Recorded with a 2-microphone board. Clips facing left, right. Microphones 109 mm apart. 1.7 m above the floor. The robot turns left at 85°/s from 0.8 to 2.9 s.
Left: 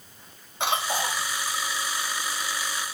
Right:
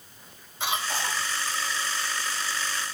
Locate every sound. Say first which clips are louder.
0.6 s a cough: left 3 dB; 65° left, 2.5 m; by 1.2 s 30° left, 2.5 m